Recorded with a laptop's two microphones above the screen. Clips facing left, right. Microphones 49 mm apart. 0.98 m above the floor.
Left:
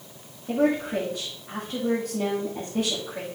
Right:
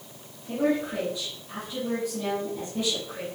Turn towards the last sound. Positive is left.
turn(degrees=70)  # may be behind; listen again after turning